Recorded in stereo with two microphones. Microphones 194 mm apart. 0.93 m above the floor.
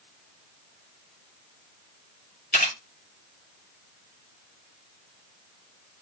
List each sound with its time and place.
2.5 s a camera shutter: 55° left (ahead or behind), 2 m